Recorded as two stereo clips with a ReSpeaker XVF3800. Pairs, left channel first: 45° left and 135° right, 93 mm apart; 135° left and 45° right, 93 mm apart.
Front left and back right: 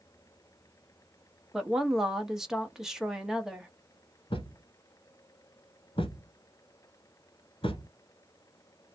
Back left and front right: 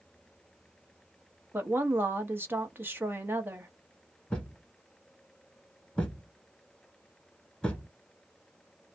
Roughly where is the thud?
Ahead left.